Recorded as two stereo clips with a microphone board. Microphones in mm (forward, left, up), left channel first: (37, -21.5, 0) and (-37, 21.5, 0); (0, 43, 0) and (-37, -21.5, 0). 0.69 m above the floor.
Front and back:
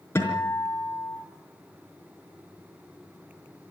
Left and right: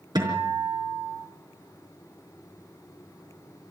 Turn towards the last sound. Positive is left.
turn(degrees=-90)